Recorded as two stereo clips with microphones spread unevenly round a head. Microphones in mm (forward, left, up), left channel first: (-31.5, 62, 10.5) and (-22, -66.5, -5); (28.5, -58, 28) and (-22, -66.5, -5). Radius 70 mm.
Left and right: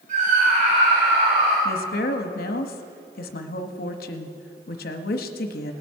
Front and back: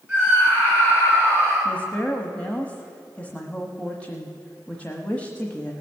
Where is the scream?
110° right, 3 m; by 1.6 s 125° right, 3.5 m.